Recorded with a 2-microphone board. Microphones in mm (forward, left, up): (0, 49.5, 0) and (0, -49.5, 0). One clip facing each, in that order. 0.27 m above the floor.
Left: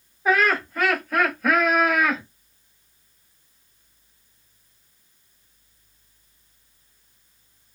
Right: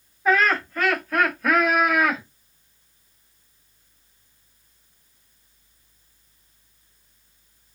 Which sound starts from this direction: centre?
Laughter, at 0.2 s.